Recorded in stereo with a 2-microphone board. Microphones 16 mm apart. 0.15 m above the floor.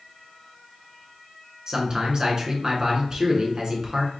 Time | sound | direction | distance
1.7 | a man speaking | 40° right (ahead or behind) | 1.5 m